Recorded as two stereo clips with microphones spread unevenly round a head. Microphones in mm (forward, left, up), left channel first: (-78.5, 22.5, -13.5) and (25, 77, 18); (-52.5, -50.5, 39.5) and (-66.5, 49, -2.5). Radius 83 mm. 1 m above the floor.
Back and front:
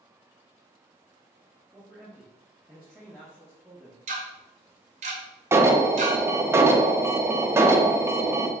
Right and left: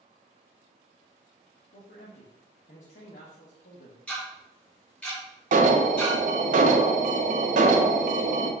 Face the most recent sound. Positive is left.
turn(degrees=95)